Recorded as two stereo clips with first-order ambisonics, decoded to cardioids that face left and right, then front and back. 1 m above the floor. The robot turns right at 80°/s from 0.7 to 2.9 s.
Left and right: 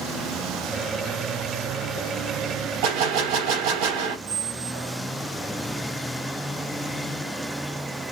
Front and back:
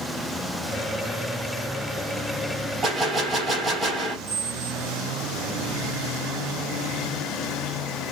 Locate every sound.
2.8 s a gunshot: 110° right, 3.5 m; by 4.2 s 105° right, 3.5 m
4.3 s a squeak: 105° right, 3 m